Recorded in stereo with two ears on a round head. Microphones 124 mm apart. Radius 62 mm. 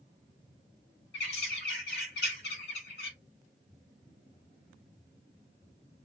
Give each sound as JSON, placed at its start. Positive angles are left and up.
{"t": 1.1, "sound": "a bird", "side_deg": 80, "distance_m": 1.1}